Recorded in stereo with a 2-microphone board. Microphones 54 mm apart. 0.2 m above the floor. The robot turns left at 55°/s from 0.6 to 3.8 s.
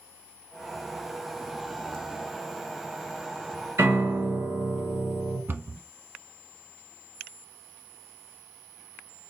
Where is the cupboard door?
40° right (ahead or behind), 0.7 m.